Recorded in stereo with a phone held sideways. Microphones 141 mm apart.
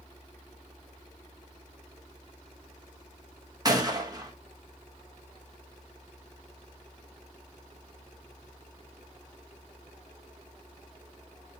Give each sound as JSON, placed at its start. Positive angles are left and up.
{"t": 3.6, "sound": "a gunshot", "side_deg": -25, "distance_m": 1.6}